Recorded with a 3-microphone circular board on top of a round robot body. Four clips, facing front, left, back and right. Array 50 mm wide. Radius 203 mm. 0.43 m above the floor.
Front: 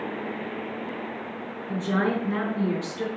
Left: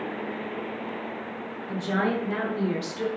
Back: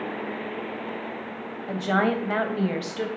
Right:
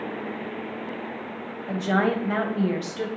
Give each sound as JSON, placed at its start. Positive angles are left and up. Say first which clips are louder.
{"t": 1.7, "sound": "a woman speaking", "louder": "right 3 dB, back 2 dB", "azimuth_deg": -145, "distance_m": 2.5}